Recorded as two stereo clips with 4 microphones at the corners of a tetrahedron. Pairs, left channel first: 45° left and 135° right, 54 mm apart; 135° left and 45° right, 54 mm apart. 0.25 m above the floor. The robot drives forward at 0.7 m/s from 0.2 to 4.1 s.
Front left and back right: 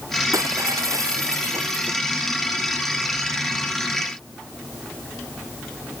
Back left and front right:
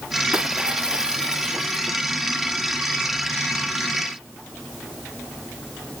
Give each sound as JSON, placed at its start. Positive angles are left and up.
{"t": 0.3, "sound": "breaking glass", "azimuth_deg": -115}